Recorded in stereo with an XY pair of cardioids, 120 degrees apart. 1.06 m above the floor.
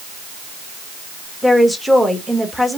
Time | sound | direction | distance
1.4 | a woman speaking | straight ahead | 1.4 m